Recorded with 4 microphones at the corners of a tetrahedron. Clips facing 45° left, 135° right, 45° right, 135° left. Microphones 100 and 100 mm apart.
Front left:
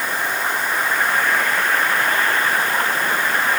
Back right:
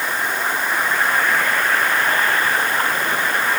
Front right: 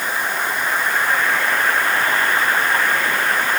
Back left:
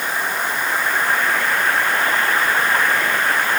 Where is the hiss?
I don't hear a hiss.